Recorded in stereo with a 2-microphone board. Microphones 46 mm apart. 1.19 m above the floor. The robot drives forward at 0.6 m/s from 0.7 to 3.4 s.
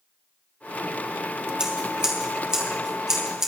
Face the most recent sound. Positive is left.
turn(degrees=-15)  # may be behind; listen again after turning